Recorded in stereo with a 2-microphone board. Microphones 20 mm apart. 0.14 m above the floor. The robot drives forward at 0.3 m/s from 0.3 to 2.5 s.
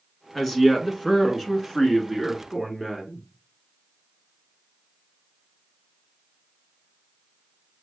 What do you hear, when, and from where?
0.3 s a woman speaking: 10° left (ahead or behind), 1.2 m; by 3.3 s 5° left (ahead or behind), 1.6 m